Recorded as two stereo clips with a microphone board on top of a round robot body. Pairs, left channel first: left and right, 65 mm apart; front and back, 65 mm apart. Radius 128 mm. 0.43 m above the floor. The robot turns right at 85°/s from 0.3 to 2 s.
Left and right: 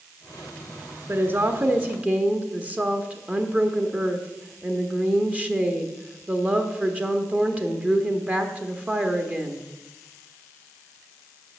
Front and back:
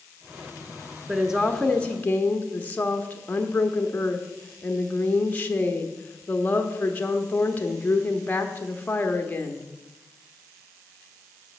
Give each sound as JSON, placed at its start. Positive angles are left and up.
{"t": 1.1, "sound": "a woman speaking", "azimuth_deg": -120, "distance_m": 0.9}